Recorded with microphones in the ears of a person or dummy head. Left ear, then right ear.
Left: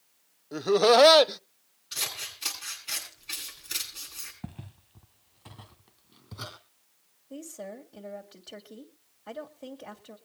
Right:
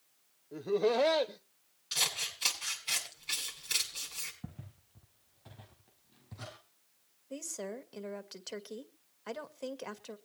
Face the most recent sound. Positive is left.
turn(degrees=-70)  # may be behind; listen again after turning